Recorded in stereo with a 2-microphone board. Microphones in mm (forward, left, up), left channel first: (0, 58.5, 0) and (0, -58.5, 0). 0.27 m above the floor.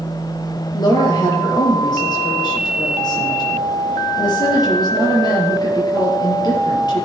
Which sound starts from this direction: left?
A woman speaking, at 0.7 s.